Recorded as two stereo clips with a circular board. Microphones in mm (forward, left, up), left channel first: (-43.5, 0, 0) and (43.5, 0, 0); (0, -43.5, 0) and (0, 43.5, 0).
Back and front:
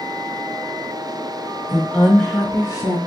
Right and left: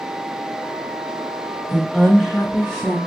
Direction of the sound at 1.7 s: 85° right.